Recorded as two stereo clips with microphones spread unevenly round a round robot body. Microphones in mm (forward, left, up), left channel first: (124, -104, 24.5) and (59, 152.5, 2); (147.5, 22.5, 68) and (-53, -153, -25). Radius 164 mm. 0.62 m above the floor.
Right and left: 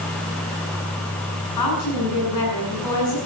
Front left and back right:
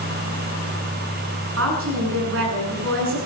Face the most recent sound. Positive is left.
turn(degrees=-105)